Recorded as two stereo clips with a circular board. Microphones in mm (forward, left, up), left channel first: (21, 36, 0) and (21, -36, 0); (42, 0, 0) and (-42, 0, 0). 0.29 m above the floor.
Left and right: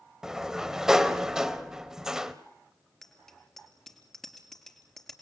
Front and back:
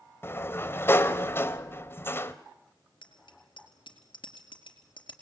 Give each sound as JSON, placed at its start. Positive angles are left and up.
{"t": 0.2, "sound": "a sliding door", "azimuth_deg": -15, "distance_m": 1.4}
{"t": 3.0, "sound": "a bicycle bell", "azimuth_deg": 5, "distance_m": 4.0}